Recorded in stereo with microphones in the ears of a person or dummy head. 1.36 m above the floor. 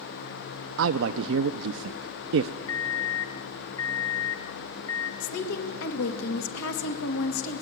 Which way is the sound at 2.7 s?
20° left (ahead or behind).